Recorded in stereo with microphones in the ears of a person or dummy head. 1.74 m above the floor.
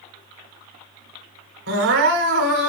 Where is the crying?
75° right (ahead or behind), 1.7 m.